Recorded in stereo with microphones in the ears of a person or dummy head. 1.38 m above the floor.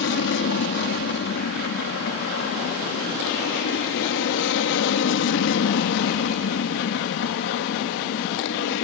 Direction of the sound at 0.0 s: 65° left (ahead or behind).